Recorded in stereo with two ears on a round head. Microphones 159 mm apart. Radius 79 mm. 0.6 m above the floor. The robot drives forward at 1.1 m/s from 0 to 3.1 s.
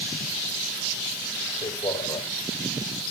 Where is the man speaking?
15° left (ahead or behind), 3.5 m; by 2.3 s 20° left (ahead or behind), 3 m.